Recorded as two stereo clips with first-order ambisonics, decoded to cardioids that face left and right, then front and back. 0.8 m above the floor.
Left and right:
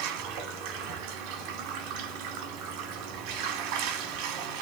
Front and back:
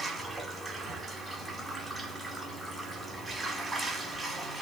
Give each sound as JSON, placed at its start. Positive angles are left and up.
{"t": 0.0, "sound": "running water", "azimuth_deg": -95, "distance_m": 1.0}